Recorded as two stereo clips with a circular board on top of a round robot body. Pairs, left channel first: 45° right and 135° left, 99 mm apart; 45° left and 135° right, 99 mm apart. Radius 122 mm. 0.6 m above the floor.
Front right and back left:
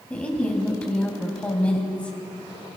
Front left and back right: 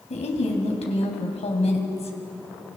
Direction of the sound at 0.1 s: 35° left.